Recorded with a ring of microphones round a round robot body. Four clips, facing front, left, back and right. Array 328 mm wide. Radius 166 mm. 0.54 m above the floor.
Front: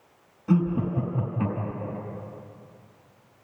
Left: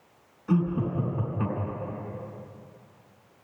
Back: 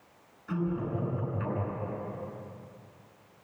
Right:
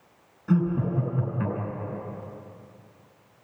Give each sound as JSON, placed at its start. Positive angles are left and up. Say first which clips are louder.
{"t": 0.5, "sound": "laughter", "louder": "right 2 dB, front 7 dB", "azimuth_deg": -30, "distance_m": 5.0}